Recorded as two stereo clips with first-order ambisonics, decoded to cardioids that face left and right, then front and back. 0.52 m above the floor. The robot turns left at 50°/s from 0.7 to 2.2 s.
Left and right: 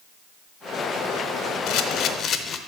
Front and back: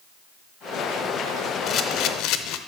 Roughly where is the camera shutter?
Ahead left.